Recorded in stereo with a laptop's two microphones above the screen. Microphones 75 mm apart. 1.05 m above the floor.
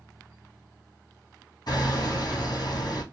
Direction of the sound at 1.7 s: 60° left (ahead or behind).